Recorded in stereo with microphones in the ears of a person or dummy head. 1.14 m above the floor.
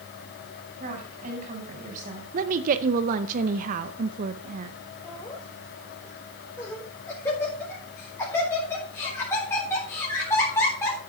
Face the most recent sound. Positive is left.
turn(degrees=15)  # may be behind; listen again after turning